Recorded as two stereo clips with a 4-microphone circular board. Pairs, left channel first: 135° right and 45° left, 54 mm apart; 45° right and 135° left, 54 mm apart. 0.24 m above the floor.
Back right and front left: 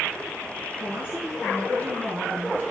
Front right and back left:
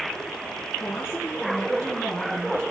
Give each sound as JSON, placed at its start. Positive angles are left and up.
{"t": 0.8, "sound": "a woman speaking", "azimuth_deg": 5, "distance_m": 3.0}